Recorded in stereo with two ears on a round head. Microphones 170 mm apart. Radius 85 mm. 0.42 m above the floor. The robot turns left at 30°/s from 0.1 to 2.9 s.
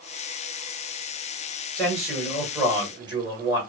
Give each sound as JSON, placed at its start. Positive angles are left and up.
{"t": 1.8, "sound": "a man speaking", "azimuth_deg": 5, "distance_m": 2.5}